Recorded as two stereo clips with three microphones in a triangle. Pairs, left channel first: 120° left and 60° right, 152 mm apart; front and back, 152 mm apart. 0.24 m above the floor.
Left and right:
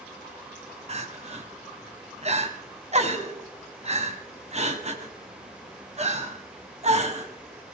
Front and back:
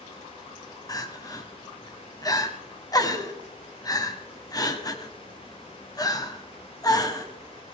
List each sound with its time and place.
0.9 s crying: 55° right, 1.4 m